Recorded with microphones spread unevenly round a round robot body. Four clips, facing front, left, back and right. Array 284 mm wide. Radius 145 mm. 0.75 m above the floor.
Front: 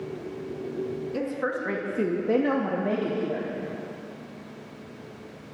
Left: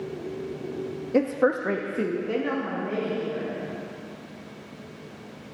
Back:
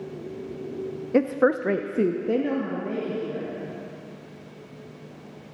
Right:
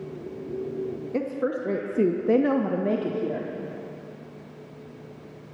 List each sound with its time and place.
1.1 s a woman speaking: 150° left, 0.9 m; by 3.5 s 65° right, 1.6 m